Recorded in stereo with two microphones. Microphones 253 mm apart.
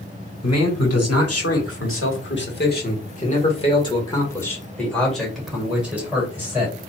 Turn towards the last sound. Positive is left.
turn(degrees=-10)  # may be behind; listen again after turning